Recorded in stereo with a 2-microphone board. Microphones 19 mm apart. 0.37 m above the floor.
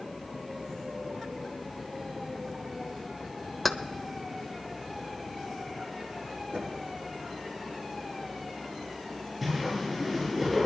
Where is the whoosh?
5° right (ahead or behind), 9.5 m.